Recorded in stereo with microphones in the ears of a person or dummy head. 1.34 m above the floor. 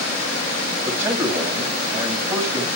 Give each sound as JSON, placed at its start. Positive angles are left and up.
{"t": 0.8, "sound": "a man speaking", "side_deg": -5, "distance_m": 6.0}